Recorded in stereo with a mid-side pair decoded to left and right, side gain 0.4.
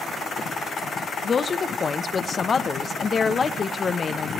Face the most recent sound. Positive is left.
turn(degrees=45)